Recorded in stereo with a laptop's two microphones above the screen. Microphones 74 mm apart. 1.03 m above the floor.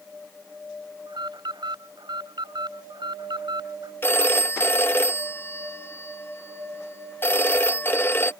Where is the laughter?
I don't hear laughter.